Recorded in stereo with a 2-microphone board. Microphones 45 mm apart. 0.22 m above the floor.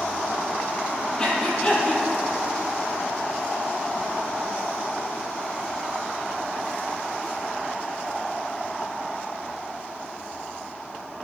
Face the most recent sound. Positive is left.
turn(degrees=20)  # may be behind; listen again after turning